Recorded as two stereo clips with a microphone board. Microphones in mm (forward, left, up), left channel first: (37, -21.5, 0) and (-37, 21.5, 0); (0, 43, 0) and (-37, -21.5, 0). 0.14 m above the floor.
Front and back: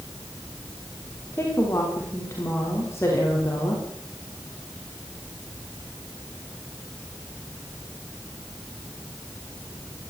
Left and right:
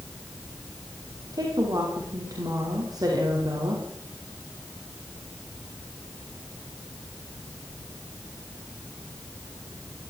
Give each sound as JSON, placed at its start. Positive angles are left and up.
{"t": 1.3, "sound": "a woman speaking", "azimuth_deg": -90, "distance_m": 9.5}